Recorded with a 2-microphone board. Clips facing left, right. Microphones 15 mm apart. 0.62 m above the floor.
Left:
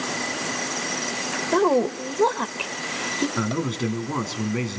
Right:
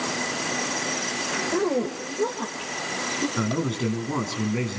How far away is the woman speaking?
About 1.9 m.